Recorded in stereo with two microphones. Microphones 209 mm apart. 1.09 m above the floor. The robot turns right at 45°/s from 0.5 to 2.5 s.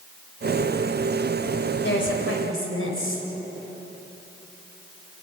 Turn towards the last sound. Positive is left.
turn(degrees=85)